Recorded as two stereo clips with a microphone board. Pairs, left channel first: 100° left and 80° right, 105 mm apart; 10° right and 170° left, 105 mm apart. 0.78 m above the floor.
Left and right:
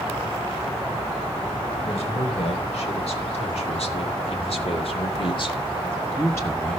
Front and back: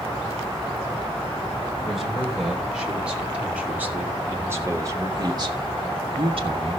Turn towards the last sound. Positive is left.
turn(degrees=175)